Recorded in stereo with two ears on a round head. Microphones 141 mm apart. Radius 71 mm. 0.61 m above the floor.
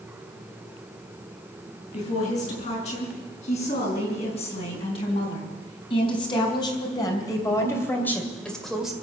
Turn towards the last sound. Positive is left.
turn(degrees=-5)  # may be behind; listen again after turning